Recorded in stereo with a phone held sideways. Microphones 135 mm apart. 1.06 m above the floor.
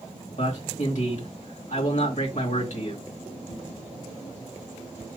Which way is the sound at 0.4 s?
65° left (ahead or behind).